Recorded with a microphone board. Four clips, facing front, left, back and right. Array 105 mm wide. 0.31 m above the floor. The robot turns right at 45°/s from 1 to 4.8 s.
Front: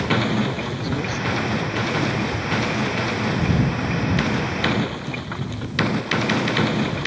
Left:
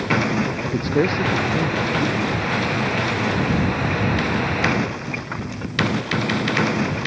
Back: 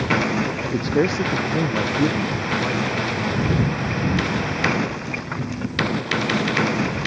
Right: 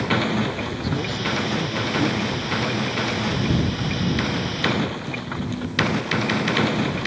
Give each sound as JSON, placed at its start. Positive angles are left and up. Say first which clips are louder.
{"t": 0.6, "sound": "a man speaking", "louder": "left 7 dB, back 6 dB", "azimuth_deg": 140}